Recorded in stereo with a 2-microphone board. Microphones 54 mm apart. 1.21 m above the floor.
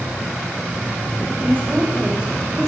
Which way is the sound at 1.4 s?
35° right (ahead or behind).